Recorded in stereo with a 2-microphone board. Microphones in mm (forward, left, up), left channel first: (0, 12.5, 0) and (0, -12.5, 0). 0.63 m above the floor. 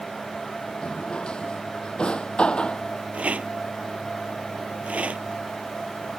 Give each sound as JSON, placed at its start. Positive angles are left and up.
{"t": 0.8, "sound": "a drawer", "side_deg": 50}
{"t": 3.1, "sound": "a rattle", "side_deg": -80}